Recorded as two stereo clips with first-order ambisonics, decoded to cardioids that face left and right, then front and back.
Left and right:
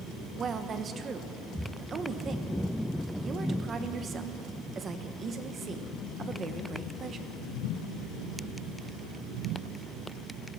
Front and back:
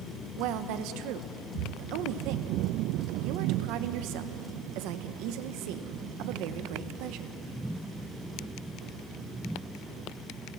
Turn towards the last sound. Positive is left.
turn(degrees=-155)